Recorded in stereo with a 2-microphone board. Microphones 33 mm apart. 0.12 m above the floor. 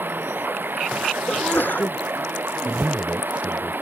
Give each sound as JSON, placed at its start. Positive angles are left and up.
{"t": 0.0, "sound": "running water", "side_deg": -85}
{"t": 1.3, "sound": "a sneeze", "side_deg": 75}
{"t": 2.6, "sound": "a man speaking", "side_deg": -45}